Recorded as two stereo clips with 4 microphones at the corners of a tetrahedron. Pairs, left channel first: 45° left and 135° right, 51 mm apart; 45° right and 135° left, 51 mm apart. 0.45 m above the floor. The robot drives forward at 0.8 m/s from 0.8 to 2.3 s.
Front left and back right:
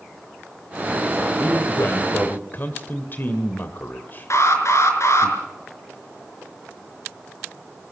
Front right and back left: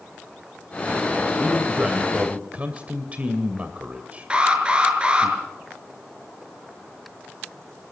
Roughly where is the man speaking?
Ahead left.